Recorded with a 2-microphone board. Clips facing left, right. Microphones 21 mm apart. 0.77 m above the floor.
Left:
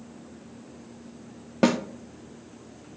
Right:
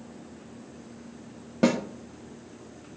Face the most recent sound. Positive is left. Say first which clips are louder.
# left 1 dB
turn(degrees=25)  # may be behind; listen again after turning